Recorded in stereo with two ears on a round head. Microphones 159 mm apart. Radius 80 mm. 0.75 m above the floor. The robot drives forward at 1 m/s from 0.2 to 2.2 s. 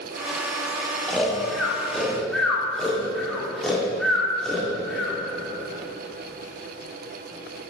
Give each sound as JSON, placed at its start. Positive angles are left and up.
{"t": 1.1, "sound": "snoring", "side_deg": 5, "distance_m": 1.2}